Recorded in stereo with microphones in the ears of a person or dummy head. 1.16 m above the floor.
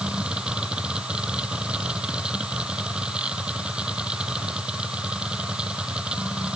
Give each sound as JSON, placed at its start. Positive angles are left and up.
{"t": 0.0, "sound": "a machine running", "side_deg": 0}